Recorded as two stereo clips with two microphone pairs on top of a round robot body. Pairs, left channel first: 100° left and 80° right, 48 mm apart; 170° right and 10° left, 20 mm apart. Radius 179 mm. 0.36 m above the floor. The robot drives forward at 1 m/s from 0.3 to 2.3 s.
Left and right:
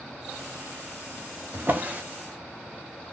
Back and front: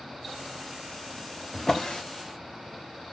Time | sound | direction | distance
1.5 | a drawer | 100° right | 0.8 m